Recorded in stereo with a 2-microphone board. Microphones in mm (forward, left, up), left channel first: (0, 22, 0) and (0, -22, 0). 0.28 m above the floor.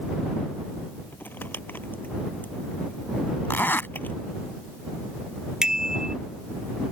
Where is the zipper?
55° left (ahead or behind).